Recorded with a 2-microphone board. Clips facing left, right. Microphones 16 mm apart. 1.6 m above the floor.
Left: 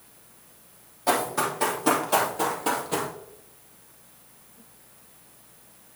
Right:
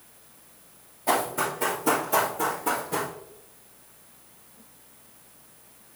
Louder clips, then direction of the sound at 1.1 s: Left 1 dB; 35° left (ahead or behind).